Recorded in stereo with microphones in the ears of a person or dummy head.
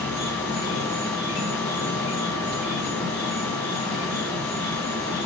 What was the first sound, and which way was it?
An insect, 30° left (ahead or behind).